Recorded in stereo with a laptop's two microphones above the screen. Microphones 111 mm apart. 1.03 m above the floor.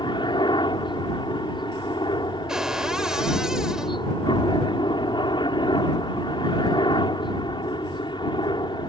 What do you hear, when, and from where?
0.0 s a helicopter: 45° left (ahead or behind)
2.5 s a cupboard door: 5° right (ahead or behind)